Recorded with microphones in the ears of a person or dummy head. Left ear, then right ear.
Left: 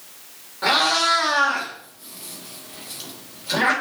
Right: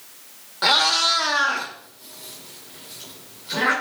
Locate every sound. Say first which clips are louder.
0.6 s a cat meowing: right 1 dB; 45° right (ahead or behind), 1.1 m; by 3.7 s 45° left (ahead or behind), 2.5 m